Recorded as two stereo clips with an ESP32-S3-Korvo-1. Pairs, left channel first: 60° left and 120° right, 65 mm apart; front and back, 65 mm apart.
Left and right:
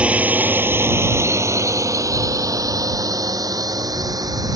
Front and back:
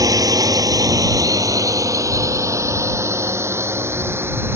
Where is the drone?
170° left; by 4.6 s 125° right.